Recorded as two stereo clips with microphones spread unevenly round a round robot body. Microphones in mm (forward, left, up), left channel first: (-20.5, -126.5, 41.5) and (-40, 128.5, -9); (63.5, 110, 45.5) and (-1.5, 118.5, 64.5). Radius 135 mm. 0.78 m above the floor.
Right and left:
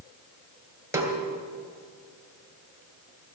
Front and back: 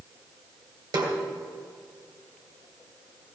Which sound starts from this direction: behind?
A snare drum, at 0.9 s.